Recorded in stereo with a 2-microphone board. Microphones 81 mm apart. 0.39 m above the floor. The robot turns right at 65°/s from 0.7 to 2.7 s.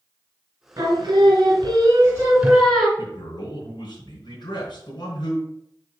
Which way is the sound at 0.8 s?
120° right.